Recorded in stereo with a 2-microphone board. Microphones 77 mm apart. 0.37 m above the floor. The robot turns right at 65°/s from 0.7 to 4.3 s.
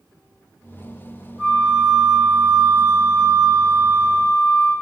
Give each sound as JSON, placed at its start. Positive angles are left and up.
{"t": 1.4, "sound": "a flute", "azimuth_deg": -125, "distance_m": 1.2}